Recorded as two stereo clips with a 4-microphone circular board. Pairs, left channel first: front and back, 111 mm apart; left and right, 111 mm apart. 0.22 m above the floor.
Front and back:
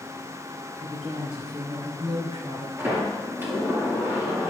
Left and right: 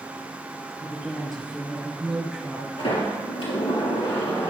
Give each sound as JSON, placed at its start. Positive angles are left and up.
{"t": 0.8, "sound": "a woman speaking", "azimuth_deg": 180, "distance_m": 4.5}
{"t": 2.8, "sound": "a sliding door", "azimuth_deg": 110, "distance_m": 5.0}